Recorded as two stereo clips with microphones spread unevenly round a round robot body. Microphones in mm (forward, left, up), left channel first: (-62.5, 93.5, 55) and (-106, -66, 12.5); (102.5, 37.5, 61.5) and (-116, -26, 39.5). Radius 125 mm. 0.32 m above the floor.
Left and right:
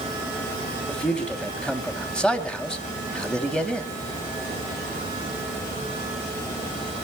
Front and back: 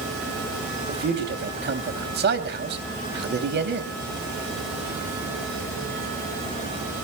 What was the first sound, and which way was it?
A man speaking, 170° left.